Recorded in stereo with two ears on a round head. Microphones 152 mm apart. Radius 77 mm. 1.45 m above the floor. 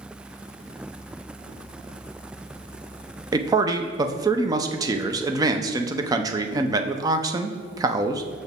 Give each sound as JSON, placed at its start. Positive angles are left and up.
{"t": 3.3, "sound": "a man speaking", "side_deg": -20, "distance_m": 0.6}